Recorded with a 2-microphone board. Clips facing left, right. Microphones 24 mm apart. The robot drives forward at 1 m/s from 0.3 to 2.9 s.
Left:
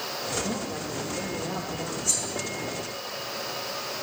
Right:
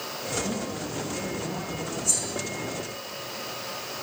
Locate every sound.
0.4 s a man speaking: 20° left (ahead or behind), 6.5 m; by 1.9 s 25° left (ahead or behind), 5.5 m
2.0 s cutlery clinking: 20° left (ahead or behind), 6.5 m